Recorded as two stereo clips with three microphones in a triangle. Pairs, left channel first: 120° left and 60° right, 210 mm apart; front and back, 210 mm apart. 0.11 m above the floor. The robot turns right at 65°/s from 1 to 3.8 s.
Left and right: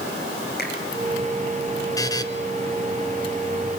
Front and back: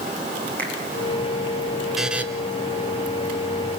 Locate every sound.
0.6 s a finger snap: 80° left, 5 m
2.0 s a buzzer: 95° left, 1.7 m; by 2.2 s 115° left, 1.7 m